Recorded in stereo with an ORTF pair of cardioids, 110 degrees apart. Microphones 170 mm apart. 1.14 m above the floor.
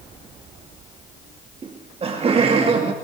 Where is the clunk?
No clunk in this recording.